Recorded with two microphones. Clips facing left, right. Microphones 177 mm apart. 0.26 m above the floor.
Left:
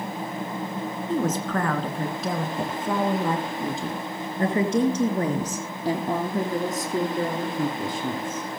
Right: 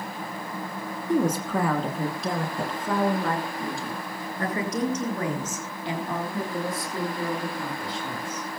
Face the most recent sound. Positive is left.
turn(degrees=55)  # may be behind; listen again after turning